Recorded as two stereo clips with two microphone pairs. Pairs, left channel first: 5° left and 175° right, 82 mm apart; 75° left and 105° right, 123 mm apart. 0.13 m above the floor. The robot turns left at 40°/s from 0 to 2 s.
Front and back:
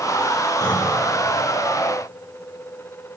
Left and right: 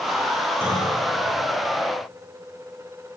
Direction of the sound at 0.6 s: 35° right.